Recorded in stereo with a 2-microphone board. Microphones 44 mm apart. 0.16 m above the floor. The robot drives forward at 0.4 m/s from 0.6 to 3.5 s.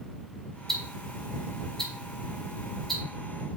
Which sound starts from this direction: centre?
Ticking, at 0.7 s.